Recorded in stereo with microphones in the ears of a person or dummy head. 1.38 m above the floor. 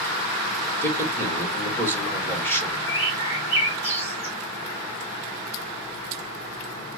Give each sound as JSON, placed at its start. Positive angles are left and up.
{"t": 0.8, "sound": "a man speaking", "side_deg": 20, "distance_m": 2.0}
{"t": 2.9, "sound": "a bird", "side_deg": 45, "distance_m": 2.5}